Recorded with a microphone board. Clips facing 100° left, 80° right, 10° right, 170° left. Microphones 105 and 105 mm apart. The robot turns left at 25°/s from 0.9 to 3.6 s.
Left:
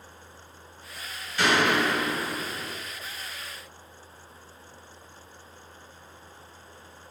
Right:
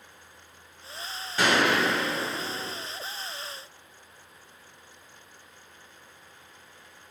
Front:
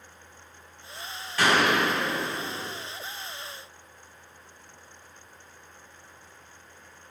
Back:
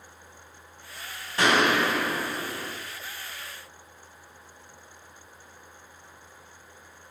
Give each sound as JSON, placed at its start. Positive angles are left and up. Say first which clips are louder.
{"t": 1.4, "sound": "a gunshot", "louder": "even, back 1 dB", "azimuth_deg": -125, "distance_m": 1.6}